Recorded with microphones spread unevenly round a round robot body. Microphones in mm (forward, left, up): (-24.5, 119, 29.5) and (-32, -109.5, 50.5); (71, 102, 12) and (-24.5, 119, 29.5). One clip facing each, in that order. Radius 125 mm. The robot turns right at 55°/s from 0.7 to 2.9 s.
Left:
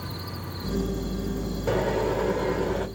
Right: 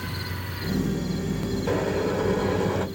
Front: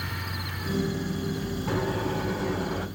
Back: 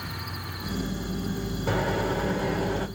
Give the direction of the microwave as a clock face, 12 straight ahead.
6 o'clock.